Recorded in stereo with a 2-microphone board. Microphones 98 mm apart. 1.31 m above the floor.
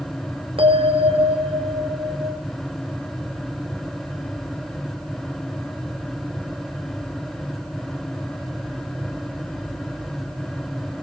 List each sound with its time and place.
0.6 s a bell: 70° right (ahead or behind), 3 m